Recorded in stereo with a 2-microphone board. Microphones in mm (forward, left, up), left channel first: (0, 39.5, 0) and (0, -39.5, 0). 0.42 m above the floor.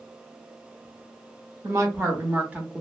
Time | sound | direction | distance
1.6 | a woman speaking | 40° right (ahead or behind) | 1.2 m